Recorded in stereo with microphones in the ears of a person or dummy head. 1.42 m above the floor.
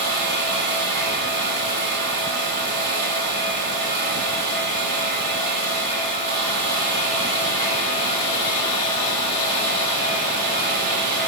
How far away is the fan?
About 2.0 m.